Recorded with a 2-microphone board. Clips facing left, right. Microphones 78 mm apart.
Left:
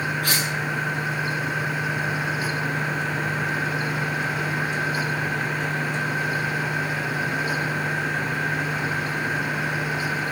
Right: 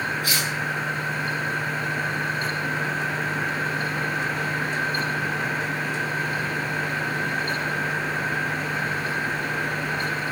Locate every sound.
0.2 s cutlery clinking: 70° left (ahead or behind), 7.5 m